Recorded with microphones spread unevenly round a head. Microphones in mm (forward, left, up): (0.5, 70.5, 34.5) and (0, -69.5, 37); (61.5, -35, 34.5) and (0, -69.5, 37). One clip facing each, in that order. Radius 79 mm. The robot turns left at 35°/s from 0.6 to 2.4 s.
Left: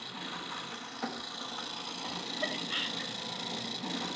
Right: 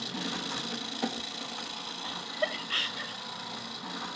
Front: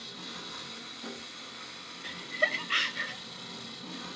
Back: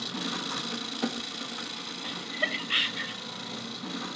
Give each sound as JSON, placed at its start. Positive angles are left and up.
{"t": 0.0, "sound": "an engine running", "azimuth_deg": -140, "distance_m": 1.6}
{"t": 2.0, "sound": "laughter", "azimuth_deg": -35, "distance_m": 0.9}